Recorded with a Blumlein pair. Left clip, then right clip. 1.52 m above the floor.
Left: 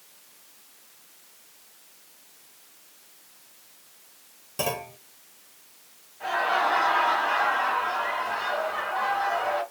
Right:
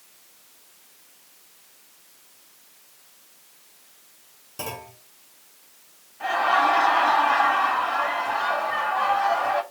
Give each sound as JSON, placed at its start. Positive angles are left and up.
{"t": 4.6, "sound": "a clunk", "azimuth_deg": 15, "distance_m": 0.9}
{"t": 6.2, "sound": "laughter", "azimuth_deg": -65, "distance_m": 3.0}